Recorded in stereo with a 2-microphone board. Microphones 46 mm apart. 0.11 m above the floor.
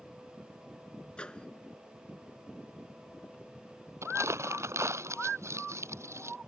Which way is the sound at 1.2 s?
20° left (ahead or behind).